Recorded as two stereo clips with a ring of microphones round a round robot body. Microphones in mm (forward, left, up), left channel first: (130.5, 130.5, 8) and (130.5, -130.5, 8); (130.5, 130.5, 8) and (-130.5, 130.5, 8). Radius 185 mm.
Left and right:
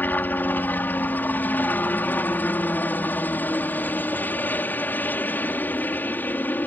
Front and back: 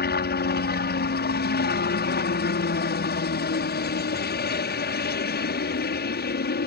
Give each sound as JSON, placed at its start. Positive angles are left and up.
{"t": 0.0, "sound": "a helicopter", "azimuth_deg": 10}